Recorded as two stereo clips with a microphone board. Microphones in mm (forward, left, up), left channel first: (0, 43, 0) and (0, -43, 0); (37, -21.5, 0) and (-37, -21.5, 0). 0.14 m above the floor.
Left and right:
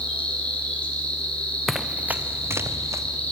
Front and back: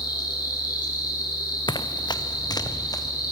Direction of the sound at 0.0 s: 15° left.